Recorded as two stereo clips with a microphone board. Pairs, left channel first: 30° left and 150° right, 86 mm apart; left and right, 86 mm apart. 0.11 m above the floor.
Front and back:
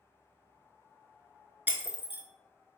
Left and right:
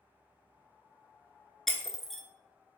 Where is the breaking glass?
175° left, 0.6 m.